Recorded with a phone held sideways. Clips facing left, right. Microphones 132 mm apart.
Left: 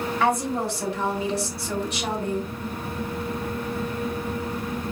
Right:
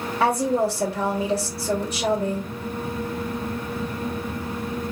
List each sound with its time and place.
0.2 s a woman speaking: 35° right (ahead or behind), 3 m